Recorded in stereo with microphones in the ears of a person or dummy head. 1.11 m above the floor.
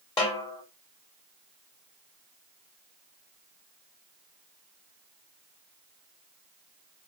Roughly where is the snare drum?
Left.